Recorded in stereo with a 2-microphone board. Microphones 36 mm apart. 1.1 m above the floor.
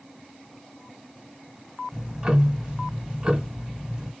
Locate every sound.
1.9 s ticking: 25° right (ahead or behind), 1.0 m